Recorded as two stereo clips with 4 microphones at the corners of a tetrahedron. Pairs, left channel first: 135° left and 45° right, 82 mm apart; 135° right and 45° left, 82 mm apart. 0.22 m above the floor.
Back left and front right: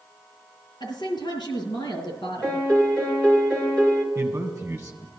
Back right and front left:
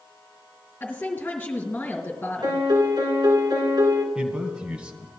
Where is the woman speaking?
160° left, 3.5 m.